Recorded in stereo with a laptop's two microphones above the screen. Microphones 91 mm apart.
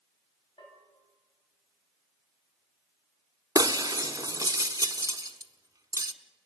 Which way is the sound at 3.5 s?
40° right (ahead or behind).